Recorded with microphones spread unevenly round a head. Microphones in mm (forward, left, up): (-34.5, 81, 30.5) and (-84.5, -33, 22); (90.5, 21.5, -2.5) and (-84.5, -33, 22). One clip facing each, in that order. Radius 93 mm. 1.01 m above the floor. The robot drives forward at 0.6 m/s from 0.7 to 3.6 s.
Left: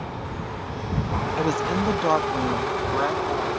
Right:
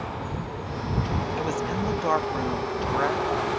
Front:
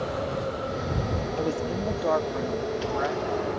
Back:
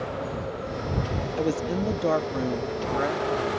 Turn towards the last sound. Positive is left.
turn(degrees=155)